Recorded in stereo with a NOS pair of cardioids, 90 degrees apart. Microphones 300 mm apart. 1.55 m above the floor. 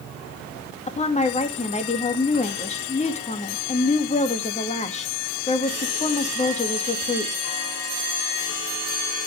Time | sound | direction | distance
0.9 | a woman speaking | 20° left | 2 m